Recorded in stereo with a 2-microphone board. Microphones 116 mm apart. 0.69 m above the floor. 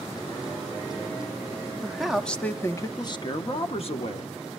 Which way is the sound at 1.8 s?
10° right (ahead or behind).